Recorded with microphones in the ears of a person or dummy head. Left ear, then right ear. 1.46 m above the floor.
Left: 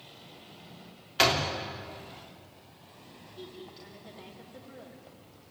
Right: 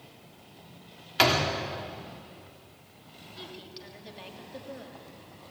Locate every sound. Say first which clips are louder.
1.2 s a door slam: right 2 dB; 5° right (ahead or behind), 3 m
3.4 s a woman speaking: right 2 dB; 30° right (ahead or behind), 3 m